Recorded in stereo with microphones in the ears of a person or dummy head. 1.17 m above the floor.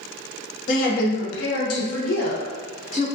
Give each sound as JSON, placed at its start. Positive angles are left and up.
{"t": 0.7, "sound": "a woman speaking", "side_deg": 45, "distance_m": 0.9}